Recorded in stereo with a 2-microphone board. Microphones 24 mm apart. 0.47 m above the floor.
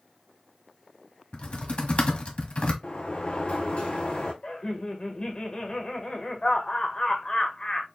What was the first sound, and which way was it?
Typing on a keyboard, 60° left (ahead or behind).